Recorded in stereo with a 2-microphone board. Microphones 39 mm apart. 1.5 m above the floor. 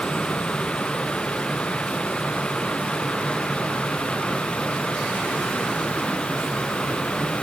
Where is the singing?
No singing in this recording.